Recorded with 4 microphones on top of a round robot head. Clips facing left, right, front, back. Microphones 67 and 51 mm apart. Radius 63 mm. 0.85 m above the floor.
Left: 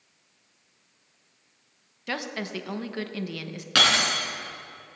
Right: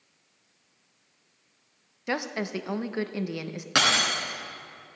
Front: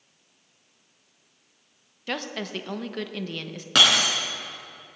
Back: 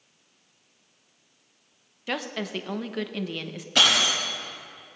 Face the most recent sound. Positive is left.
turn(degrees=-25)